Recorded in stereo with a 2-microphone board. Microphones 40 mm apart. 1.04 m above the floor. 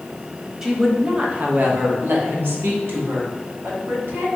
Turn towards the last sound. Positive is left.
turn(degrees=-75)  # may be behind; listen again after turning